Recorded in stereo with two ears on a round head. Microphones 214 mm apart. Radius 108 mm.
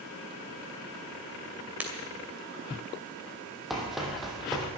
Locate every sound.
1.8 s breaking glass: 5° right (ahead or behind), 2.5 m
3.7 s running footsteps: centre (ahead or behind), 3 m